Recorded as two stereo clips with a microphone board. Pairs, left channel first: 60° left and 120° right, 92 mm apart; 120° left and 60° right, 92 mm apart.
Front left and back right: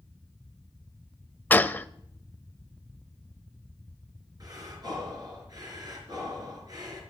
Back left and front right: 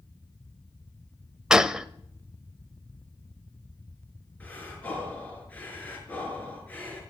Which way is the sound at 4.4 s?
165° right.